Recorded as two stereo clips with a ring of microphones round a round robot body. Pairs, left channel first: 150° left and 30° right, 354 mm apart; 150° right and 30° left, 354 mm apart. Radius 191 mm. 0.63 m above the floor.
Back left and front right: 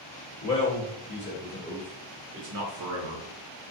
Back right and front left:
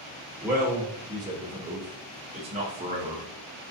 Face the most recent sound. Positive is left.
turn(degrees=-45)